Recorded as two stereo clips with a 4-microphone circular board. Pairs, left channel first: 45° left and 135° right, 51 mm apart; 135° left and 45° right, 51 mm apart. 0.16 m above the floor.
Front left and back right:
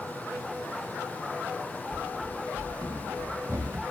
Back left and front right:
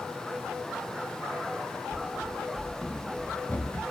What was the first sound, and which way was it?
Running footsteps, 120° right.